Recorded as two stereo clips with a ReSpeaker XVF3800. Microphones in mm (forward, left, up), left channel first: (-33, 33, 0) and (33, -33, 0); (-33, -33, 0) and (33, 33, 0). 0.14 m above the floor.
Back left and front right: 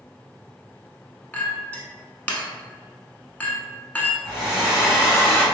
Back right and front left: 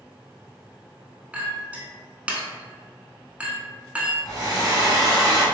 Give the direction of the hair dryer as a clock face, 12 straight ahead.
11 o'clock.